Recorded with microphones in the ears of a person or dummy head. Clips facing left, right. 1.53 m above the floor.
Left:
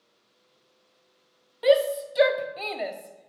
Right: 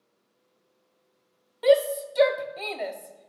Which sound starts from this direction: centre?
A shout, at 1.6 s.